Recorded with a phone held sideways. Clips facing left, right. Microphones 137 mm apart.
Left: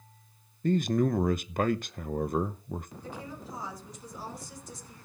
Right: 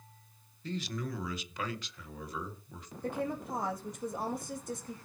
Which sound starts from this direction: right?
A woman speaking, at 3.0 s.